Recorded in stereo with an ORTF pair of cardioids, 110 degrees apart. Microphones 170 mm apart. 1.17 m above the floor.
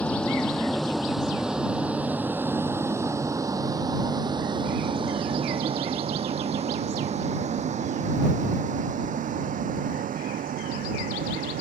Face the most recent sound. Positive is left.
turn(degrees=-55)